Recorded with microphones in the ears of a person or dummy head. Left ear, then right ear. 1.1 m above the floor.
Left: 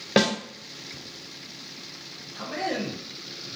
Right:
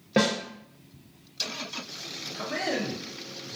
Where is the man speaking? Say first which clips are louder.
Left 1 dB; 5° right (ahead or behind), 0.6 m.